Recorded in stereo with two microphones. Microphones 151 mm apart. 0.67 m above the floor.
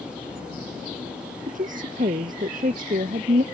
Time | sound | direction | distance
1.5 | a woman speaking | 55° right (ahead or behind) | ?